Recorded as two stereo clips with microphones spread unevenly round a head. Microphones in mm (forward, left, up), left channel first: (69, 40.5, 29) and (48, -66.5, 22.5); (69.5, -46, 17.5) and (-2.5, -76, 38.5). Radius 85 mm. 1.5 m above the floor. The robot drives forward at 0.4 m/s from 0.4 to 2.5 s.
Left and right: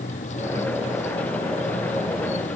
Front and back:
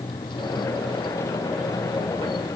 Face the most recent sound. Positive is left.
turn(degrees=75)